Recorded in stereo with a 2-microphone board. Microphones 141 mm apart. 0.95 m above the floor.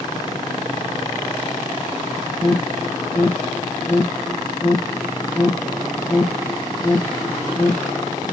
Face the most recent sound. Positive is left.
turn(degrees=15)  # may be behind; listen again after turning